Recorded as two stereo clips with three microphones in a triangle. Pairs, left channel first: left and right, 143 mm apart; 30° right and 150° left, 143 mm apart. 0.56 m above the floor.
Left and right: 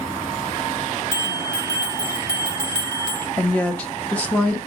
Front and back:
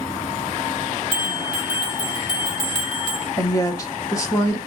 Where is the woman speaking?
15° left, 0.7 m.